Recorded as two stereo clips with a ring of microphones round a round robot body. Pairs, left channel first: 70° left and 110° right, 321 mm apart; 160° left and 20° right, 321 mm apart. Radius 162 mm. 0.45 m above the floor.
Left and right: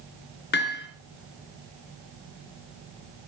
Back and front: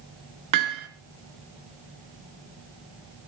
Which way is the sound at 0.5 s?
10° left.